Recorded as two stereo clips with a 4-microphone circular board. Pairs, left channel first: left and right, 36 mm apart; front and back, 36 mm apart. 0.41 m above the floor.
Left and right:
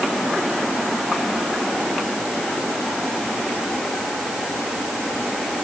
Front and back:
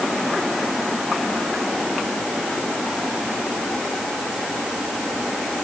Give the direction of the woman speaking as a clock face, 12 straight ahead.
No woman speaking in this recording.